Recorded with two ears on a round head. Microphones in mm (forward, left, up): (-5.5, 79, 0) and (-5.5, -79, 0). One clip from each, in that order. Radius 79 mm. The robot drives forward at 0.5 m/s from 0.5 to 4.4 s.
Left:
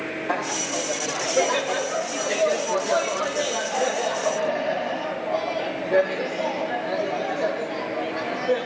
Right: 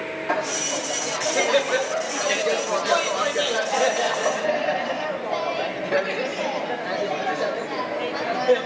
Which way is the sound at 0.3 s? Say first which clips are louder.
Right 2 dB; 35° right (ahead or behind).